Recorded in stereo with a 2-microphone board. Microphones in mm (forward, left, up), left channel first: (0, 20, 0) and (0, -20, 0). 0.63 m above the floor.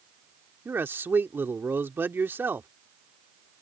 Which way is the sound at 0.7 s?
60° right (ahead or behind).